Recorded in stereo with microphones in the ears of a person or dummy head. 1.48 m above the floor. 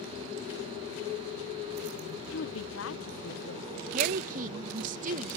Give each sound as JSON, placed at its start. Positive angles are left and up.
{"t": 2.3, "sound": "a woman speaking", "side_deg": 65}
{"t": 3.9, "sound": "a woman speaking", "side_deg": -50}